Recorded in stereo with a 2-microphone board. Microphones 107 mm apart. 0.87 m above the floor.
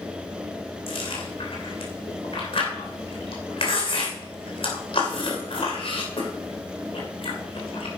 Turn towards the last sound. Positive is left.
turn(degrees=60)  # may be behind; listen again after turning